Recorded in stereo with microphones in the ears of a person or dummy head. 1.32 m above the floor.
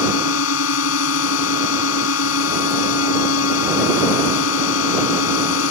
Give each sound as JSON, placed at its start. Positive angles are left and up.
{"t": 0.0, "sound": "a drone", "side_deg": 85}